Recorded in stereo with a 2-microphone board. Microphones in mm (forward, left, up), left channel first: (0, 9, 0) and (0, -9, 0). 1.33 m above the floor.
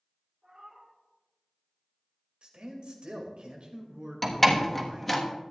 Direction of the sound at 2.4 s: 80° right.